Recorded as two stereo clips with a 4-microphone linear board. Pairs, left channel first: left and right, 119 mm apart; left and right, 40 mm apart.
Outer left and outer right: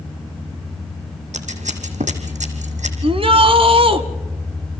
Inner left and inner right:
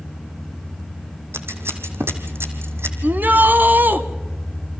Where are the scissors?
90° right, 2.5 m.